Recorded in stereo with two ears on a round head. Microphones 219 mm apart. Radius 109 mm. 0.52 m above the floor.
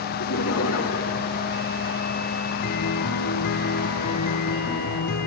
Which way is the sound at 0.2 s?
65° left (ahead or behind).